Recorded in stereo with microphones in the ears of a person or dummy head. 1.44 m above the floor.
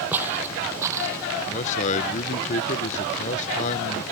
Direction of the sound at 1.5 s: 45° left (ahead or behind).